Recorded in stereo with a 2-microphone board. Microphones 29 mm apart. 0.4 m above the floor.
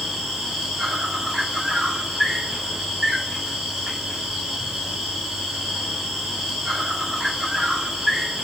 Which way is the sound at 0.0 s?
10° right (ahead or behind).